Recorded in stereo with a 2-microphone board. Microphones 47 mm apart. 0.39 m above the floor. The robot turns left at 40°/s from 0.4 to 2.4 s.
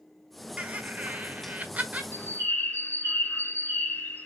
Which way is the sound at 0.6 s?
60° right.